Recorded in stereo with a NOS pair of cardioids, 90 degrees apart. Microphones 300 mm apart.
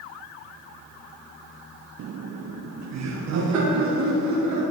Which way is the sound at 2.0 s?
55° right.